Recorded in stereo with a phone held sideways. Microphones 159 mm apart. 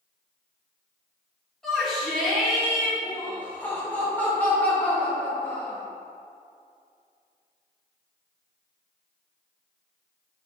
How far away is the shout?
About 2 m.